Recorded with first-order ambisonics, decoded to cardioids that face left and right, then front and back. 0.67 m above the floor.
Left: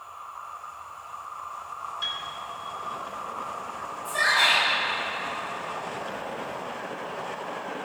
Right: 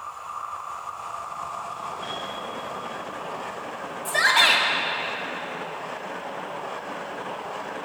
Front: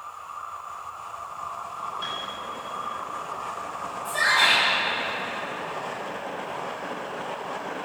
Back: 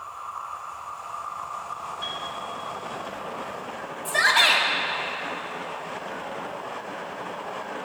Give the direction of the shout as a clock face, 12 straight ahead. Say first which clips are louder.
Right 3 dB, back 1 dB; 5 o'clock.